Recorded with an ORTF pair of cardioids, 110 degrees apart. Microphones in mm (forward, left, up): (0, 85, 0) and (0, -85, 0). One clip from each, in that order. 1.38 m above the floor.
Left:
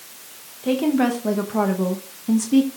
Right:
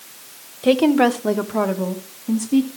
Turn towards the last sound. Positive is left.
turn(degrees=20)